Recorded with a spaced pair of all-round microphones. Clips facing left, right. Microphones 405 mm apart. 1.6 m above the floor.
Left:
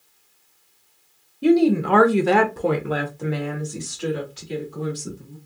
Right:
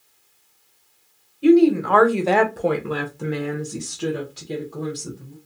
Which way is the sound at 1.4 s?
55° left (ahead or behind).